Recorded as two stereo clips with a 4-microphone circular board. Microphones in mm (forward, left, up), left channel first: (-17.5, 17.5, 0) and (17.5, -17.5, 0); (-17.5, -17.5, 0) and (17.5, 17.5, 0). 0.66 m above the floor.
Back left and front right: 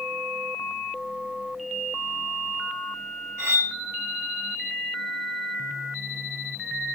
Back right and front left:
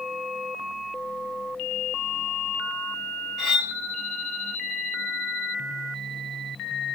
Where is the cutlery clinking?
50° right, 1.5 m.